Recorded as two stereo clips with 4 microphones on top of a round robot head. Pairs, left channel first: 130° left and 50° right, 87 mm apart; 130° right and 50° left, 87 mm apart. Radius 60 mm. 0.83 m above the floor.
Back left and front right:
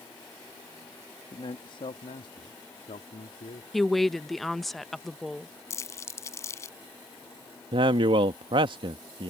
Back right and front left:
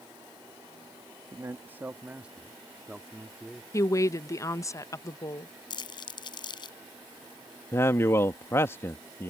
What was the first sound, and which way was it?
A man speaking, 105° left.